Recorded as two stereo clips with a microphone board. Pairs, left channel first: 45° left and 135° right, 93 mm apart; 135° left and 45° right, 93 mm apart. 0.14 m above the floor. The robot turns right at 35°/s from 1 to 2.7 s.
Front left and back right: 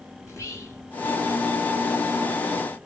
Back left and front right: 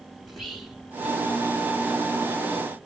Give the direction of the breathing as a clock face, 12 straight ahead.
I don't hear breathing.